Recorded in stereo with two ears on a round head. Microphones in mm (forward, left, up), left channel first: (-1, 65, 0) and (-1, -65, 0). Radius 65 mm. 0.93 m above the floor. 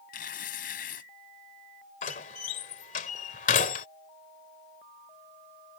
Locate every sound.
0.1 s tearing paper: 65° left (ahead or behind)
2.0 s a door slam: 60° left (ahead or behind)